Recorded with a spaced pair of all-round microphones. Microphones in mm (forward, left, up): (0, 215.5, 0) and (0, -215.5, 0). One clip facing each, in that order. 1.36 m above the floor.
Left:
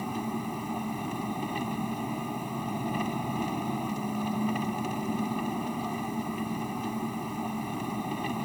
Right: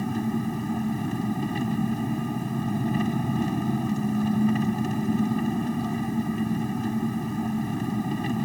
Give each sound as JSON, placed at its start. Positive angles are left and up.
{"t": 0.0, "sound": "an engine running", "side_deg": -30}